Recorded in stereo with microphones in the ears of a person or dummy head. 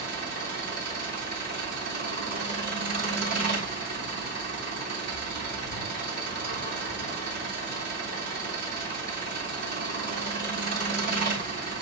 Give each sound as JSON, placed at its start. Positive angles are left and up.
{"t": 0.0, "sound": "an engine running", "side_deg": -55, "distance_m": 3.0}